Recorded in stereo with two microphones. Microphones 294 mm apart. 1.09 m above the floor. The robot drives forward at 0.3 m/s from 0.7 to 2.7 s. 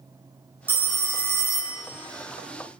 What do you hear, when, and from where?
0.7 s a phone ringing: 50° right (ahead or behind), 0.6 m; by 1.8 s 70° right (ahead or behind), 0.5 m